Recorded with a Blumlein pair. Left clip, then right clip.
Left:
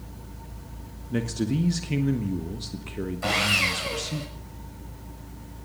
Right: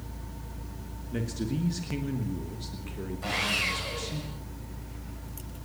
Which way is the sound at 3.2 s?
65° left.